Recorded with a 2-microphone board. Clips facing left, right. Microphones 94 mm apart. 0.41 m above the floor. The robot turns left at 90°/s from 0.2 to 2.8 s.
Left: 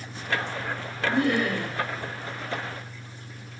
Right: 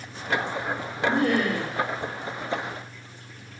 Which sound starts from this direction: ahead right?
Laughter, at 1.1 s.